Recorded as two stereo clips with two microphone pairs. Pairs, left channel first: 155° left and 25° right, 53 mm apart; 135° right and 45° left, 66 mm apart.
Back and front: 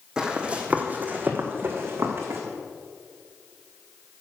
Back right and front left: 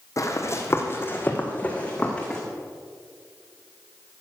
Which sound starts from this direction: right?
Running footsteps, at 0.2 s.